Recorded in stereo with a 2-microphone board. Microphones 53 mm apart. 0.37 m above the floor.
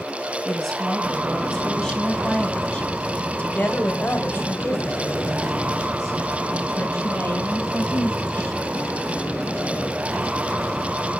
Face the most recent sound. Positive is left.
turn(degrees=35)  # may be behind; listen again after turning